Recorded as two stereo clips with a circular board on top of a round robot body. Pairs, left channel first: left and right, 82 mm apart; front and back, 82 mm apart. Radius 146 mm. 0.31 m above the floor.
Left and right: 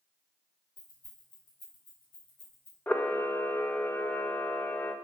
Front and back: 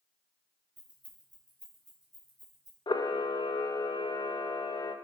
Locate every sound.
0.8 s keys jangling: 105° left, 2 m; by 2.8 s 100° left, 4 m
2.9 s a camera shutter: 20° left, 0.6 m